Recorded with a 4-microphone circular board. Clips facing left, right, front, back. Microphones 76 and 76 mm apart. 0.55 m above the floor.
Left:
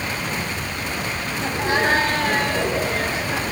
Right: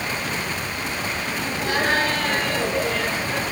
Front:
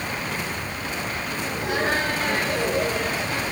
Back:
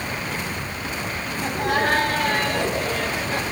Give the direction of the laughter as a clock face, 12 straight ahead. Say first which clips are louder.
Left 3 dB, back 4 dB; 7 o'clock.